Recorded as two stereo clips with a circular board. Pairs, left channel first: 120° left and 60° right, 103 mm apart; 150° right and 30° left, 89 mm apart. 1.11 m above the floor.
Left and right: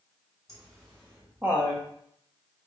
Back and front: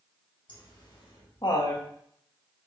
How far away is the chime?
I don't hear a chime.